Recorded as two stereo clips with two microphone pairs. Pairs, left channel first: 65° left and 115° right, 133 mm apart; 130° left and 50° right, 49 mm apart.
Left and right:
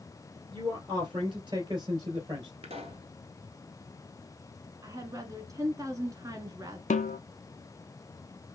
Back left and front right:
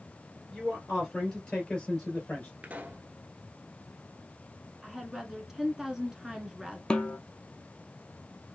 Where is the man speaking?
150° right, 2.5 m; by 2.5 s 165° right, 3 m.